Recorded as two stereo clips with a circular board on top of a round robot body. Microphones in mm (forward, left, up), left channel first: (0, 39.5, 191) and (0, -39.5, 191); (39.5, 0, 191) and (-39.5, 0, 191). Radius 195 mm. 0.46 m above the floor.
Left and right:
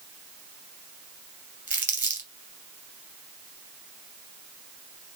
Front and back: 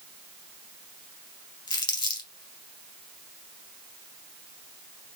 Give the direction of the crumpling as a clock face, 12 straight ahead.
1 o'clock.